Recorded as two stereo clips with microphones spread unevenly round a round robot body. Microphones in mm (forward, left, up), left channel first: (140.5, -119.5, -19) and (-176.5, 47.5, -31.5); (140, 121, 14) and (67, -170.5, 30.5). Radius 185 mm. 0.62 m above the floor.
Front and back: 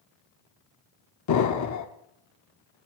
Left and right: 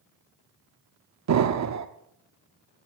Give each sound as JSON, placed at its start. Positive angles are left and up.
{"t": 1.3, "sound": "an explosion", "azimuth_deg": -70, "distance_m": 1.0}